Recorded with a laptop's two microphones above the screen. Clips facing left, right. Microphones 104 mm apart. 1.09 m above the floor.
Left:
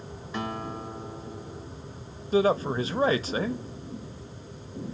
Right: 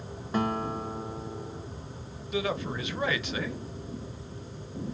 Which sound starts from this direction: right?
A guitar, at 0.3 s.